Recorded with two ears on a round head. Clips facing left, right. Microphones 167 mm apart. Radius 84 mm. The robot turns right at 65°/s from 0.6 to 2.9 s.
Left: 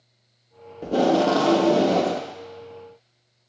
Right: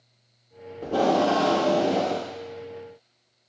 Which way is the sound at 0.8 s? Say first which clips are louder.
Left 2 dB; 15° left.